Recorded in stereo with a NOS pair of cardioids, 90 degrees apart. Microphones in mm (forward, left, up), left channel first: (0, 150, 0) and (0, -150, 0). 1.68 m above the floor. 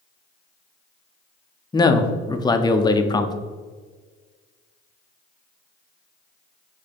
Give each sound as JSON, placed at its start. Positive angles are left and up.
{"t": 1.7, "sound": "a man speaking", "azimuth_deg": 15, "distance_m": 0.5}